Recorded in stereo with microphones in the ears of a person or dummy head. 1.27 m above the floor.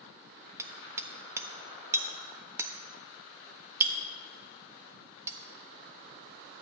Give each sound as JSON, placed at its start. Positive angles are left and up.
{"t": 0.6, "sound": "hammering", "side_deg": -10, "distance_m": 1.2}